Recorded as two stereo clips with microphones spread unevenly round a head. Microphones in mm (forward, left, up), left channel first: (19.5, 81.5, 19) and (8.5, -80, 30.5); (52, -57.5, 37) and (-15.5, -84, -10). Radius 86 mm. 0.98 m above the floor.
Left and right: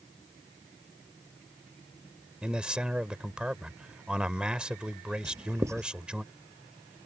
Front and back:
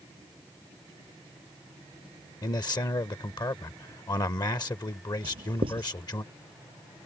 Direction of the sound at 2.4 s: 10° right.